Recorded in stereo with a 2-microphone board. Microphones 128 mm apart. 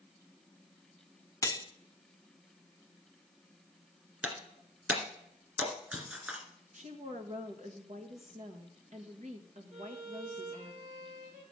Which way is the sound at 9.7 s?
65° right (ahead or behind).